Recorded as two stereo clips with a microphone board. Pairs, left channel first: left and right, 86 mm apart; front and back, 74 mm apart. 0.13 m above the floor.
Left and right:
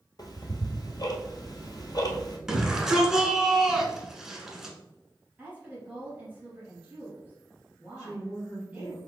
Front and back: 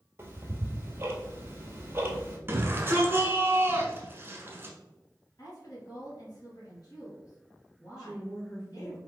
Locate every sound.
0.2 s ticking: 125° left, 1.1 m
2.5 s a shout: 170° right, 1.2 m
5.4 s a woman speaking: 15° right, 2.5 m
8.0 s a woman speaking: 50° left, 2 m